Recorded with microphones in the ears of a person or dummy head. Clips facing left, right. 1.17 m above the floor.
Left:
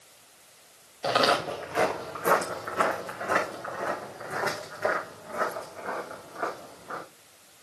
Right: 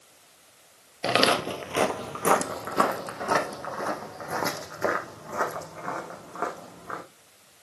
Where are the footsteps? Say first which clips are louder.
Right 1 dB; 35° right (ahead or behind), 1.6 m; by 7.0 s 80° right, 5.5 m.